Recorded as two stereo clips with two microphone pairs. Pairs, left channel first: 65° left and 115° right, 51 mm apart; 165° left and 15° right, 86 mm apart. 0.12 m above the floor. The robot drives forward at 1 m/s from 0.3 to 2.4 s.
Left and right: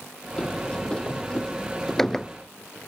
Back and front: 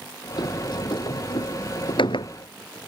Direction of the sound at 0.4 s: 135° left.